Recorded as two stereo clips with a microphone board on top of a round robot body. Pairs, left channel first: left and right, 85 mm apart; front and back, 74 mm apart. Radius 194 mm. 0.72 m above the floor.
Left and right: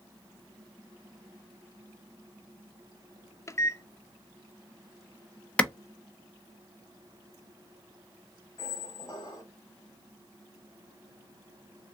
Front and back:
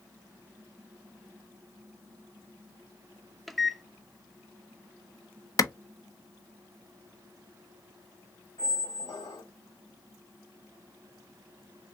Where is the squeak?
35° left, 0.6 m.